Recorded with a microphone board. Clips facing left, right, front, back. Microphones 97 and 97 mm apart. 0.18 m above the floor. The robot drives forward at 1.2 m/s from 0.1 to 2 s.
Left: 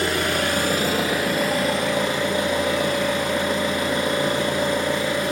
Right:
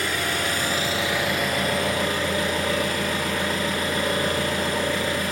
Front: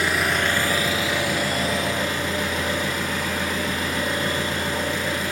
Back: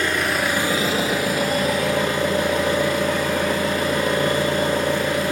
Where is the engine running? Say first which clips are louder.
Left 4 dB, back 1 dB; 75° left, 1.1 m; by 5.3 s 155° left, 2.5 m.